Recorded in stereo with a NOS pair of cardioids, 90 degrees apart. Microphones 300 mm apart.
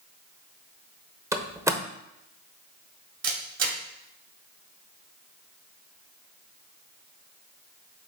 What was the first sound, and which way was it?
A door slam, 10° right.